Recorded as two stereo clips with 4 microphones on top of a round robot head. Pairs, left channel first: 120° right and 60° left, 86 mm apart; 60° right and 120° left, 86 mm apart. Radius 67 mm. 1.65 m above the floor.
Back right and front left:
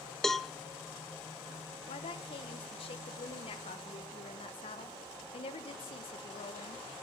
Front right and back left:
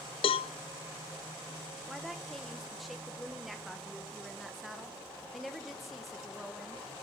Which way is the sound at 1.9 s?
150° right.